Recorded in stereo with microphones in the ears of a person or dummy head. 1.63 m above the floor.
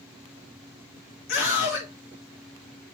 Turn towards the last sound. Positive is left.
turn(degrees=55)  # may be behind; listen again after turning